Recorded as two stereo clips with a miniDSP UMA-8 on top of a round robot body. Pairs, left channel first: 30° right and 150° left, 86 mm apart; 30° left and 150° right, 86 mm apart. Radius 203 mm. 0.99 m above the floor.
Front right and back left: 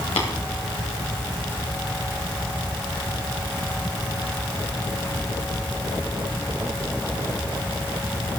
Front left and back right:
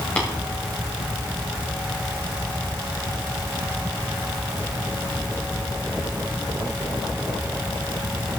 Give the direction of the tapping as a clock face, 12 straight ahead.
1 o'clock.